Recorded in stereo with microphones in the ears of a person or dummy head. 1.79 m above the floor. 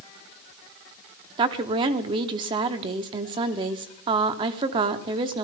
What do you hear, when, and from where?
1.4 s a woman speaking: 30° right (ahead or behind), 0.9 m